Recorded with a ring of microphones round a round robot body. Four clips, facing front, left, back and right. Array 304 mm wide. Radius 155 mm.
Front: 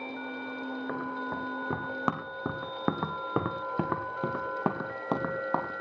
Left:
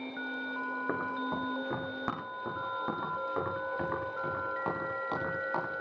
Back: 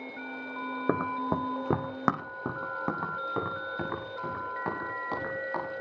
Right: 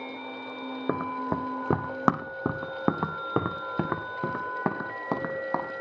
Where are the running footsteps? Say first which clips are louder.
Right 7 dB, back 9 dB; 150° right, 2 m; by 5.7 s 40° right, 5.5 m.